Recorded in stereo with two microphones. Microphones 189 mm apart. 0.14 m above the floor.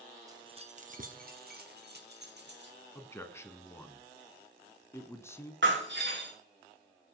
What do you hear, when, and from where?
0.3 s keys jangling: 20° right (ahead or behind), 1.0 m; by 2.8 s 70° right (ahead or behind), 3.5 m
3.0 s a man speaking: 15° left (ahead or behind), 1.2 m
5.6 s breaking glass: 80° right, 5 m